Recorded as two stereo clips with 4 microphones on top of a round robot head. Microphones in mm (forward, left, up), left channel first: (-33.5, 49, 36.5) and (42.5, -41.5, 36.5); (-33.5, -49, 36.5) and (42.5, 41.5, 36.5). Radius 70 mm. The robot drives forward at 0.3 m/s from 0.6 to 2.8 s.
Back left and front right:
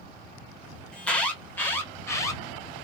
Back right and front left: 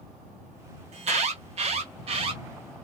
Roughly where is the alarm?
Ahead left.